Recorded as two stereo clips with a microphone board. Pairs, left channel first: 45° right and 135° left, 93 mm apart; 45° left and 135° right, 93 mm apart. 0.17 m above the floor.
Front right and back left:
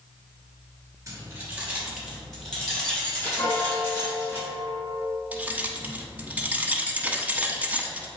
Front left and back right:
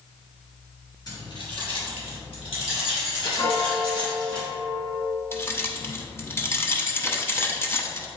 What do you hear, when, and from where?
1.1 s keys jangling: 80° left, 1.9 m; by 4.4 s 25° left, 5.5 m
3.4 s a piano: straight ahead, 1.6 m
5.3 s keys jangling: 75° left, 0.8 m